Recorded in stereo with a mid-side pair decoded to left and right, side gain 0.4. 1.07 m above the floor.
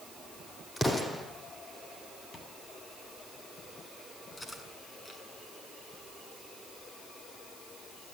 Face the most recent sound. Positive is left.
turn(degrees=25)